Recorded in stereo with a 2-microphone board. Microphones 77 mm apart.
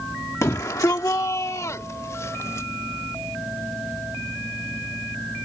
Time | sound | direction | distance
0.4 | a shout | 45° left (ahead or behind) | ?